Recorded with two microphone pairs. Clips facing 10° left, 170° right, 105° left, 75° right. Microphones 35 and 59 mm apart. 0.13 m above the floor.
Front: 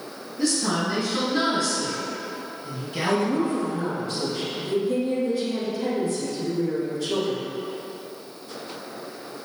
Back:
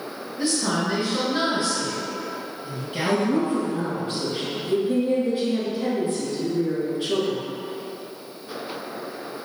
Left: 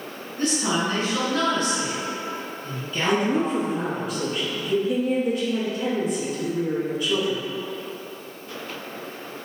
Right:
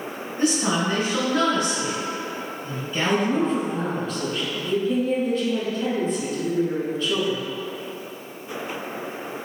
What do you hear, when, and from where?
0.4 s a woman speaking: 125° right, 1.5 m
3.0 s a woman speaking: straight behind, 1.2 m